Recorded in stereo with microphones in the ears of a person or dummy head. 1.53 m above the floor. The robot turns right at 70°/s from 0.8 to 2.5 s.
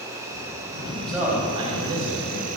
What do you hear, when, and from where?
0.0 s an insect: 165° right, 1.1 m; by 2.6 s 45° right, 1.1 m
1.1 s a man speaking: 175° left, 2.5 m; by 2.6 s 85° right, 2.5 m